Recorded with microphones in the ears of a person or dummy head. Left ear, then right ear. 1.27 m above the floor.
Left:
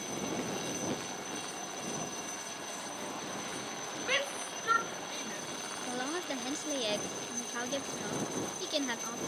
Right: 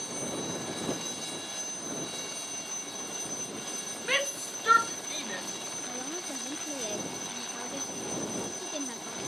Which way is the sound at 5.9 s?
45° left (ahead or behind).